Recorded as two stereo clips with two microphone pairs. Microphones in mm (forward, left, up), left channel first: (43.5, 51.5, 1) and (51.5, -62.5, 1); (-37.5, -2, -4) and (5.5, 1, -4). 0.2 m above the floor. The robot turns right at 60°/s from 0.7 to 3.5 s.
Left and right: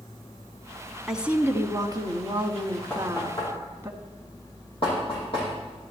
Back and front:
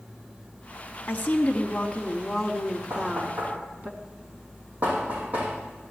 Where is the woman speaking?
170° right, 1.4 m; by 3.9 s 25° right, 1.4 m.